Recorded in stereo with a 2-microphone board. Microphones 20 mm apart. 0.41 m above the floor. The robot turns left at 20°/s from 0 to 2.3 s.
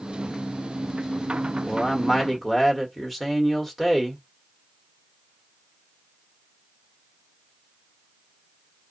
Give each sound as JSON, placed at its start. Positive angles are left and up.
{"t": 1.7, "sound": "a man speaking", "side_deg": 5, "distance_m": 1.4}